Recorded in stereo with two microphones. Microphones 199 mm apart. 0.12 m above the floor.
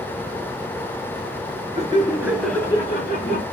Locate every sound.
1.8 s laughter: 35° right (ahead or behind), 1.5 m; by 3.4 s 45° left (ahead or behind), 1.9 m